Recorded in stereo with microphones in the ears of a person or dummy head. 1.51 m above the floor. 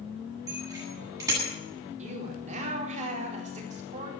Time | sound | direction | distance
0.5 | a bicycle bell | 20° right (ahead or behind) | 10 m
2.0 | a woman speaking | 40° right (ahead or behind) | 4.5 m